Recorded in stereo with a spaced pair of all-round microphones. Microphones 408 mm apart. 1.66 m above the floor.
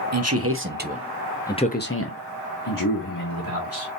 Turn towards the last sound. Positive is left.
turn(degrees=55)  # may be behind; listen again after turning